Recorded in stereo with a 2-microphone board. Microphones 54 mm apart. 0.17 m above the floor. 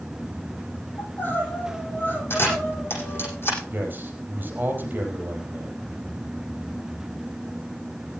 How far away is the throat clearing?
No throat clearing in this recording.